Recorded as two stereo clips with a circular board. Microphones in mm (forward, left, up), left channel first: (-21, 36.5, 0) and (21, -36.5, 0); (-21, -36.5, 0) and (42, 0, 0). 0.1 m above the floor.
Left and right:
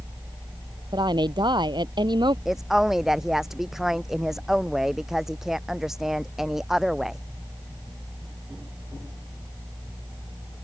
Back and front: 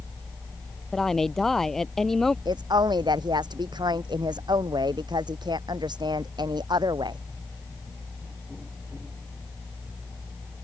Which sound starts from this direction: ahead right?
A woman speaking, at 0.9 s.